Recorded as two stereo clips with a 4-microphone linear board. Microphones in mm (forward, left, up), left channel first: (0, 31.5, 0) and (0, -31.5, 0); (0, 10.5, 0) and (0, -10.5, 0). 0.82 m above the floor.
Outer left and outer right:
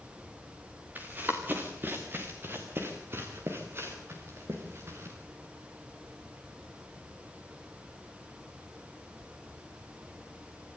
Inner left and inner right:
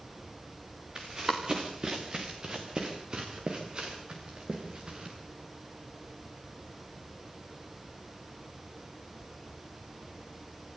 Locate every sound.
0.9 s running footsteps: 30° right (ahead or behind), 3.5 m; by 5.2 s 45° right (ahead or behind), 5.5 m